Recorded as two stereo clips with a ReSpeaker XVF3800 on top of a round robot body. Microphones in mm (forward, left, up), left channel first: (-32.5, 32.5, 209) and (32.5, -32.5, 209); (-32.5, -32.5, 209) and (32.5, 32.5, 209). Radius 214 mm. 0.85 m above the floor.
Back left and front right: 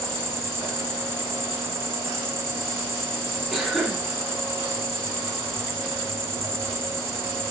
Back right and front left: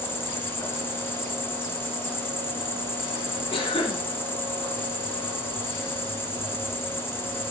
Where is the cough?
125° right, 1.6 m.